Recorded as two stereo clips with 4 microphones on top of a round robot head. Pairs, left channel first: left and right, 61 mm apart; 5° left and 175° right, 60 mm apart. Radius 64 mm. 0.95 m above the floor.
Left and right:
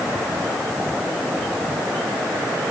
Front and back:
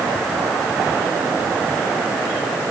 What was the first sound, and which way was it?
Only background noise.